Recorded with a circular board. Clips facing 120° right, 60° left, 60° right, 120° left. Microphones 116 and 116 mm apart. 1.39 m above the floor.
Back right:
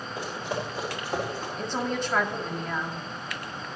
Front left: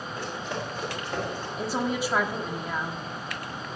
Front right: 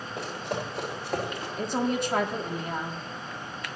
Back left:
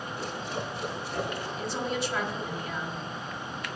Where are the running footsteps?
45° right, 5.5 m.